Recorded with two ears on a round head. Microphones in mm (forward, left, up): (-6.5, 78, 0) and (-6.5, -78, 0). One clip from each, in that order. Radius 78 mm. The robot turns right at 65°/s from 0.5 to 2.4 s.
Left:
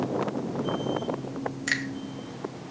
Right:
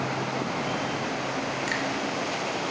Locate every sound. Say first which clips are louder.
1.7 s a finger snap: left 4 dB; 20° left (ahead or behind), 3 m; by 1.8 s 35° left (ahead or behind), 3 m